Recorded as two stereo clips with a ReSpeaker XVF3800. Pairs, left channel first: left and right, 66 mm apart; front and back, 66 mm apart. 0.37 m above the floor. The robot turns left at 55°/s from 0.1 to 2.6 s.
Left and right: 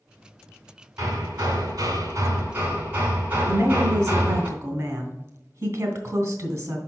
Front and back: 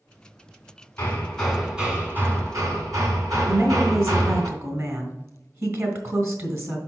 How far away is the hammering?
About 2.5 m.